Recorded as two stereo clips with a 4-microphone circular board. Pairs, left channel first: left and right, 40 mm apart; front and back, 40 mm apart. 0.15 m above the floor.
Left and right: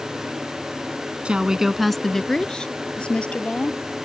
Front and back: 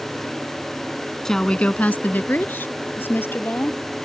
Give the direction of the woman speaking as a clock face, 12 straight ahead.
2 o'clock.